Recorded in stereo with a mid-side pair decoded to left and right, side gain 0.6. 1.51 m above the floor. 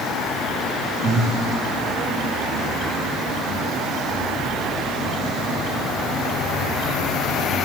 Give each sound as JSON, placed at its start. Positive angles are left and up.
{"t": 1.0, "sound": "breathing", "azimuth_deg": -40, "distance_m": 2.5}